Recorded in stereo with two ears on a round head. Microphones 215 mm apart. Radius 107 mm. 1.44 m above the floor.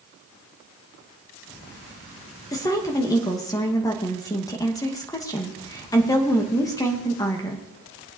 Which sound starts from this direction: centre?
A woman speaking, at 2.5 s.